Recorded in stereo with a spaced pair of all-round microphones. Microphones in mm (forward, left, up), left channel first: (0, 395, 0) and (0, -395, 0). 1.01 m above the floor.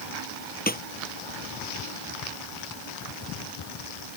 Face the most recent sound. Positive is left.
turn(degrees=10)  # may be behind; listen again after turning